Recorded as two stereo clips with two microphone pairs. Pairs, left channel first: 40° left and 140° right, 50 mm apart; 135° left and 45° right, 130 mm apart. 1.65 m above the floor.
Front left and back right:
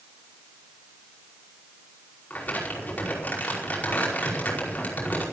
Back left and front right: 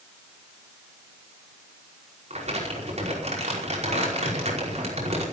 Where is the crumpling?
15° right, 5 m.